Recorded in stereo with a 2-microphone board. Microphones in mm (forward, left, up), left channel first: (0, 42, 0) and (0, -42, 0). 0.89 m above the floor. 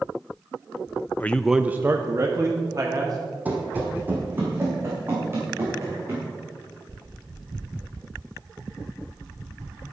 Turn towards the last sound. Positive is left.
turn(degrees=-30)  # may be behind; listen again after turning